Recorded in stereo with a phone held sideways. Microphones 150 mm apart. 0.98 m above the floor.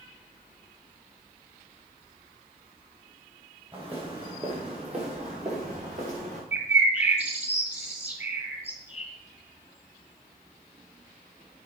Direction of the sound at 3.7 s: 35° right (ahead or behind).